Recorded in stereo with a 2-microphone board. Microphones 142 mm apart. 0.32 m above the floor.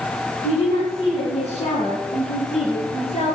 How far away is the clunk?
No clunk in this recording.